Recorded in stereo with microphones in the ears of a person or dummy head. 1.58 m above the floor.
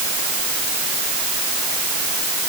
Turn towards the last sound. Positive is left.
No sound to turn to.